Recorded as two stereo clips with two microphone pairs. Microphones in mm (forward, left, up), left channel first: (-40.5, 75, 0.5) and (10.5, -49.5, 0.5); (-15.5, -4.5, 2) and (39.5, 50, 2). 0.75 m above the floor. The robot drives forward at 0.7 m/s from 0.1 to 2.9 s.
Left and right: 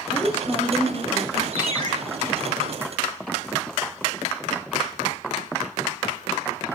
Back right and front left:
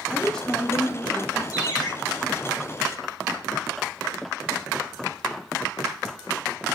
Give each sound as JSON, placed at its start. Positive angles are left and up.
{"t": 0.1, "sound": "a woman speaking", "azimuth_deg": 135, "distance_m": 1.0}
{"t": 1.5, "sound": "a ringtone", "azimuth_deg": -105, "distance_m": 2.0}